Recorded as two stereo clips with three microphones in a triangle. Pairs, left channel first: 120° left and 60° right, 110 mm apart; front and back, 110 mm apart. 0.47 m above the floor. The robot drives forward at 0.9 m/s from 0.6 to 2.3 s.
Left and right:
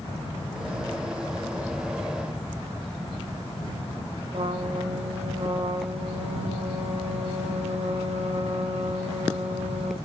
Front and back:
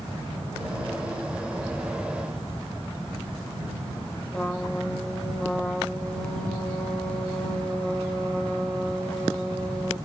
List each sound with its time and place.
4.3 s a trumpet: 80° right, 3.5 m